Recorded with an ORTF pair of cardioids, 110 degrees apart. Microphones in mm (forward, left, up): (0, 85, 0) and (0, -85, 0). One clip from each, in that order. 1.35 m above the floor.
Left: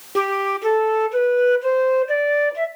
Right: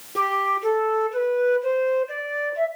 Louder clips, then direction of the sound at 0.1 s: Left 1 dB; 40° left.